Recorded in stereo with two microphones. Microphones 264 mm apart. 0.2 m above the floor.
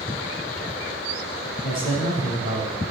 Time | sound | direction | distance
1.6 | a man speaking | 80° left | 5.5 m